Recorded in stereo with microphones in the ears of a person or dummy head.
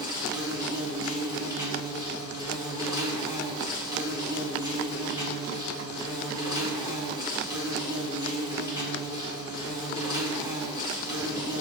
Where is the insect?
20° right (ahead or behind), 0.7 m.